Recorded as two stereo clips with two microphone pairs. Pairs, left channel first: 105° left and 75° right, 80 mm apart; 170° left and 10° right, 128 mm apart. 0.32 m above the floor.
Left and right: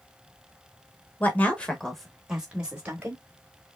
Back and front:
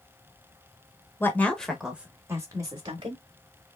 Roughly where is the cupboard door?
I don't hear a cupboard door.